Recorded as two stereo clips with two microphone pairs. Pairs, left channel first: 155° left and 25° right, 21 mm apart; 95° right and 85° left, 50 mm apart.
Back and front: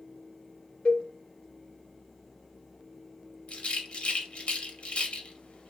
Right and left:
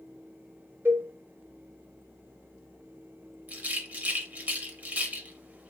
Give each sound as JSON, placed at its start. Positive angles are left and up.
{"t": 0.8, "sound": "a cowbell", "azimuth_deg": 120, "distance_m": 0.7}
{"t": 3.5, "sound": "a rattle", "azimuth_deg": 140, "distance_m": 0.5}